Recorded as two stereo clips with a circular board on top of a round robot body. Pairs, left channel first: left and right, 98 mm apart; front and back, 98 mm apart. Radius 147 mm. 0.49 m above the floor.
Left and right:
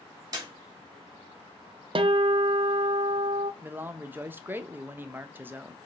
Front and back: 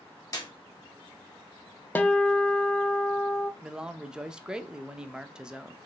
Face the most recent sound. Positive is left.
turn(degrees=-110)